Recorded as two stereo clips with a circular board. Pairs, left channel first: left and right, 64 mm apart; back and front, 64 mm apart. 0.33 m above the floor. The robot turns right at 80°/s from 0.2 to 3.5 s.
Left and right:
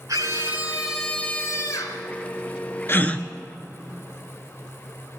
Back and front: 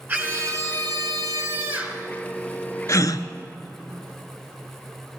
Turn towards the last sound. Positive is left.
turn(degrees=-170)